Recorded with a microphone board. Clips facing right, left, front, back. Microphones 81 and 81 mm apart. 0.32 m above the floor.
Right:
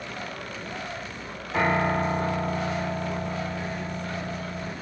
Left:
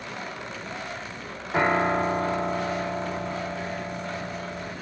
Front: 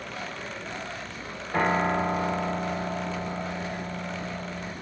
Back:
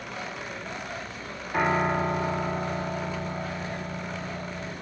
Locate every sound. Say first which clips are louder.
1.5 s a piano: left 1 dB, even; 45° left, 5 m